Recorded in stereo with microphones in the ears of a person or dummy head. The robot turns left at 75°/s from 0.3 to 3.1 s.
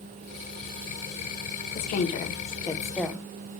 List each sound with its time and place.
1.8 s a woman speaking: 105° left, 0.7 m; by 3.2 s straight ahead, 0.7 m